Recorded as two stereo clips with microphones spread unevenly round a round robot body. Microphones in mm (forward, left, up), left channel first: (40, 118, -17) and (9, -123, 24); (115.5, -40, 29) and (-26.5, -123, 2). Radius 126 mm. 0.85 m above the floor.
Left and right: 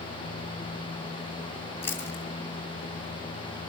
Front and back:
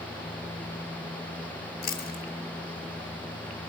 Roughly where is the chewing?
Ahead.